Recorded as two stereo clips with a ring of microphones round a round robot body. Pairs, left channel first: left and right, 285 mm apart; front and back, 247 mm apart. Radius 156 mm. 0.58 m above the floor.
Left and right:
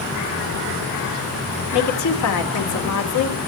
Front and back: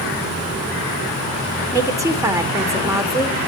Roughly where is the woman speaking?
Left.